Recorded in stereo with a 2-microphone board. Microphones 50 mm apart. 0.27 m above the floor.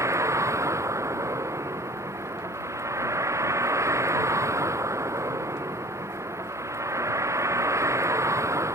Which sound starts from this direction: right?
A vehicle, at 0.0 s.